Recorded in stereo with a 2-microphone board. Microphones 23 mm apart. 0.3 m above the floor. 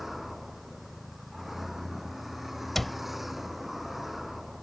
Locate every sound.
0.0 s a vehicle: 10° right (ahead or behind)
2.8 s a cupboard door: 10° left (ahead or behind)